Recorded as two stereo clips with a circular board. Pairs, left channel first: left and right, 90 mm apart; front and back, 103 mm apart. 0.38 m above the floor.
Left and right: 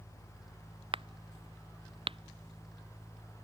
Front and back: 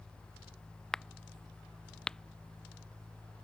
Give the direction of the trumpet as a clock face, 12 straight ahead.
I don't hear a trumpet.